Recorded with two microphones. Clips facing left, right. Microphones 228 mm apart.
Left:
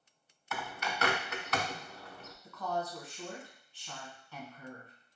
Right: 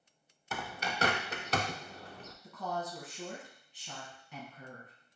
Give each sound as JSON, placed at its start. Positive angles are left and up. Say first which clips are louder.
{"t": 0.5, "sound": "a bird", "louder": "even", "side_deg": -30, "distance_m": 0.5}
{"t": 2.4, "sound": "a woman speaking", "louder": "left 2 dB", "side_deg": -20, "distance_m": 1.5}